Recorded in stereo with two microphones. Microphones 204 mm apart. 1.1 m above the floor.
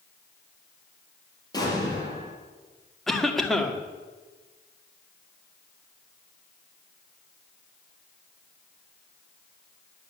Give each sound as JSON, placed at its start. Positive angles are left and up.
{"t": 1.5, "sound": "an explosion", "side_deg": 20, "distance_m": 5.5}
{"t": 3.1, "sound": "a cough", "side_deg": 0, "distance_m": 2.0}